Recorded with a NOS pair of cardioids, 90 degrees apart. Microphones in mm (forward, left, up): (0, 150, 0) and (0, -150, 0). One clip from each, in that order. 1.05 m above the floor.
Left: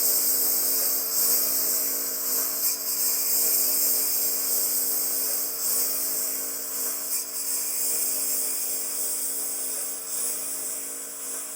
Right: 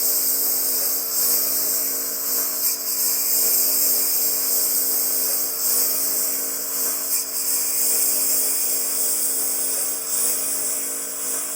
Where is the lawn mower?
15° right; by 11.6 s 55° right.